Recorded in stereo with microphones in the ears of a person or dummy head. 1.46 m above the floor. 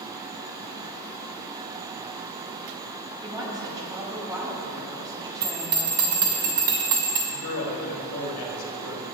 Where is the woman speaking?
20° right (ahead or behind), 1.7 m.